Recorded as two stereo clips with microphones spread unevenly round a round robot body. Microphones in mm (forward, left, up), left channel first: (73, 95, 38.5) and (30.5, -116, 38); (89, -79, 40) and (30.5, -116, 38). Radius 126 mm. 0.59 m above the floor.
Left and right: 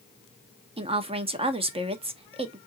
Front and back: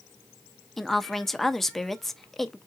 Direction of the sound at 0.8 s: 55° right.